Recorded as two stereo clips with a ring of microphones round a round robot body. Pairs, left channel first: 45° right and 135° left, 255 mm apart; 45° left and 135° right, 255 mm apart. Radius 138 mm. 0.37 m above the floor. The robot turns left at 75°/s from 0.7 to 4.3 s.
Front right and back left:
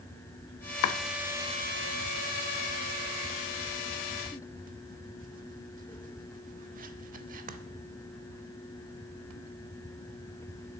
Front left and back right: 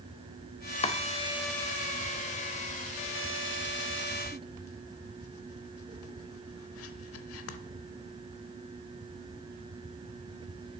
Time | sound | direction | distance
0.8 | chopping | 20° right | 0.6 m